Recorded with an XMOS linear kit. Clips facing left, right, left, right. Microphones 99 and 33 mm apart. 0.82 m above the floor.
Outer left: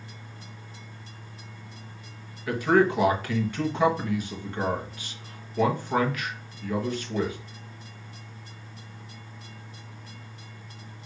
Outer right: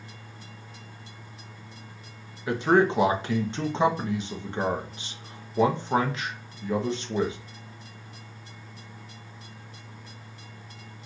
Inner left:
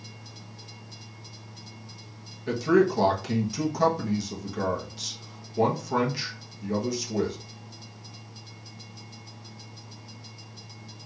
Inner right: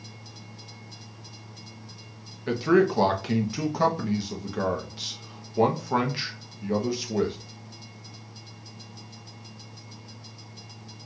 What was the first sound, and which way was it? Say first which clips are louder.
A man speaking: even, inner right 1 dB; 20° right (ahead or behind).